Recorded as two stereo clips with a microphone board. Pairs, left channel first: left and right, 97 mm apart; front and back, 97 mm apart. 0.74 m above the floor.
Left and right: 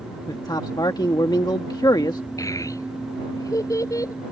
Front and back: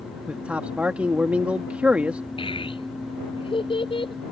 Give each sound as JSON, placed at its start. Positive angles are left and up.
{"t": 0.3, "sound": "a man speaking", "azimuth_deg": 110}
{"t": 2.4, "sound": "a child speaking", "azimuth_deg": 35}